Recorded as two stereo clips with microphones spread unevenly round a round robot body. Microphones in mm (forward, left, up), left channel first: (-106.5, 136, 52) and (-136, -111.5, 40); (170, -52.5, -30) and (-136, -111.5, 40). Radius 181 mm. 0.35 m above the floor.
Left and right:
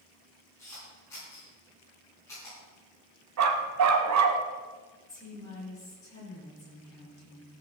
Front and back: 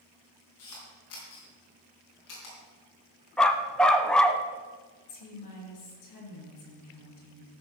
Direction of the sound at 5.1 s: 5° left.